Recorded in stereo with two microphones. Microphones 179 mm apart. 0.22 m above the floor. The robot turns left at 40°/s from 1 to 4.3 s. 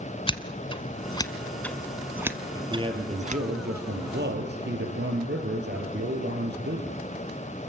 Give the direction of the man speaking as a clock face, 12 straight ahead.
1 o'clock.